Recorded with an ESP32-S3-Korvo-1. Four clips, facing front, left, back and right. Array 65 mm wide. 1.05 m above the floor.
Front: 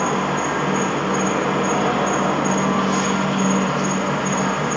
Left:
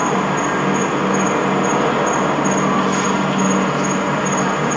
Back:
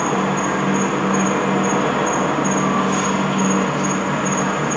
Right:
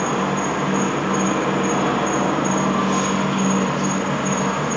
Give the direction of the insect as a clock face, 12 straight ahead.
8 o'clock.